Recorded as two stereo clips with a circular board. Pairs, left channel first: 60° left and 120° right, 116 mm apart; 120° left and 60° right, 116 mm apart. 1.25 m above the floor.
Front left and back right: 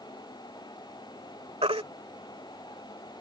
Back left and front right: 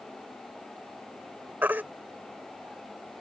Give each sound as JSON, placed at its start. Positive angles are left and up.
{"t": 1.6, "sound": "a baby crying", "azimuth_deg": -130}